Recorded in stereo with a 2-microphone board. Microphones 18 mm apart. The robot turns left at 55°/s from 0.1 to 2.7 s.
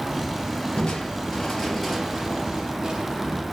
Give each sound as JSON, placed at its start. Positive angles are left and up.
{"t": 0.8, "sound": "crushing", "azimuth_deg": 65, "distance_m": 3.0}